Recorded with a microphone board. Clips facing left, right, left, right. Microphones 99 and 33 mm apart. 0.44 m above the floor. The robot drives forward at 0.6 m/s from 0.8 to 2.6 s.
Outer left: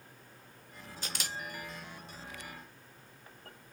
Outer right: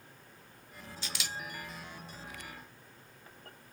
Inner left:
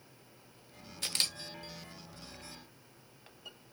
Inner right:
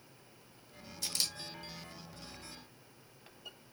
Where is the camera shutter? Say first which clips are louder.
Outer left 1 dB, inner left 3 dB; 45° left (ahead or behind), 0.7 m; by 1.4 s 40° left (ahead or behind), 0.8 m.